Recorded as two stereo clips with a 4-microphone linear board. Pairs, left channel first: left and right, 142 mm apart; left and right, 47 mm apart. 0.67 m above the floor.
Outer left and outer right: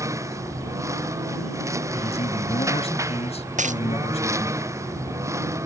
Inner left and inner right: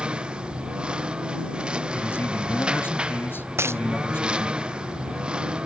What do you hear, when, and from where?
0.0 s a lawn mower: 20° right (ahead or behind)
1.9 s a man speaking: 50° left (ahead or behind)
3.6 s a dropped coin: 60° right (ahead or behind)